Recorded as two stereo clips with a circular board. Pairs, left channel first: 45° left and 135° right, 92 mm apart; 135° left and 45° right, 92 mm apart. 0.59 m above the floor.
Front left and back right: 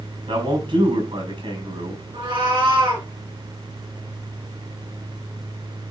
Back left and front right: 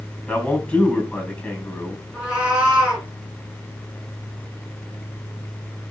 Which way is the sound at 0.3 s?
145° right.